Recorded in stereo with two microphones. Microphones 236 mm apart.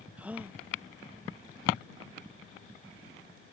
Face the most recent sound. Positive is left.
turn(degrees=-5)  # may be behind; listen again after turning